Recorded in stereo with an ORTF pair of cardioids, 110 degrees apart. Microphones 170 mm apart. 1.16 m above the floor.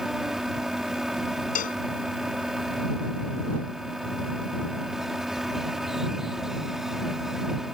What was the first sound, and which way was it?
A fan, 5° right.